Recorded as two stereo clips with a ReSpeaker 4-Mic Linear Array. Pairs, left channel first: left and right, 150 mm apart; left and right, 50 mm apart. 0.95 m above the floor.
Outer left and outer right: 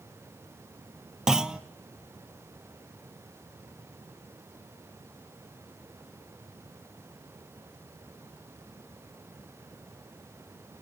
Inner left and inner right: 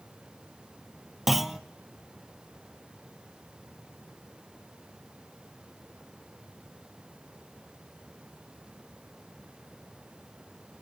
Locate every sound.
1.3 s a clunk: 5° right (ahead or behind), 0.6 m